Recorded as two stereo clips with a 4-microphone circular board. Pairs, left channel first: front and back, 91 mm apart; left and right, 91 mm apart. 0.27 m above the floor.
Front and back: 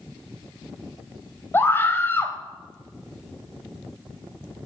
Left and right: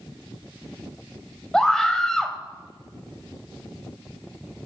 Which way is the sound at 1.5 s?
10° left.